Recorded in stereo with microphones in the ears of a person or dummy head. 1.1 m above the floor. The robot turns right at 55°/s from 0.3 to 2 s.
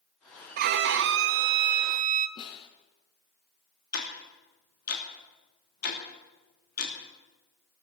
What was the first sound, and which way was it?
A violin, 130° right.